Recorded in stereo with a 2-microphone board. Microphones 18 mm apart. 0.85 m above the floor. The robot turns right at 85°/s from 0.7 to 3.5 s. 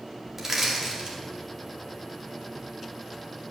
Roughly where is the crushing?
Right.